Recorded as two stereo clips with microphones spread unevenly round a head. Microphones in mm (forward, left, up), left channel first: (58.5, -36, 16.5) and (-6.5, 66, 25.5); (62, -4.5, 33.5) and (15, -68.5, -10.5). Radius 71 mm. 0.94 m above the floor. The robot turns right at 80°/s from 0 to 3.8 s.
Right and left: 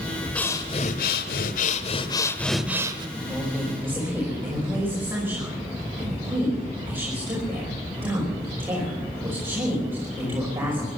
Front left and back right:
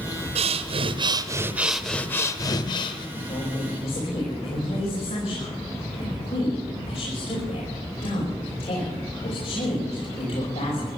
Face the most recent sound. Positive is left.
turn(degrees=50)